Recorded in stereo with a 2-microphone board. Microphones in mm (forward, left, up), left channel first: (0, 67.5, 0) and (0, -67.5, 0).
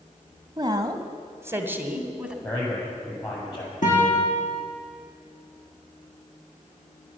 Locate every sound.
0.6 s a woman speaking: 30° right (ahead or behind), 1.2 m; by 2.3 s 5° right (ahead or behind), 1.5 m
2.4 s a man speaking: 35° left (ahead or behind), 7 m
3.8 s a guitar: 65° left (ahead or behind), 5 m